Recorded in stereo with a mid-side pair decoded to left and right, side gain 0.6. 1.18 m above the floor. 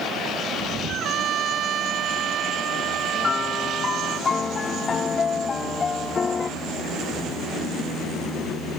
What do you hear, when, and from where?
0.9 s a trumpet: 50° right
3.2 s a piano: 30° left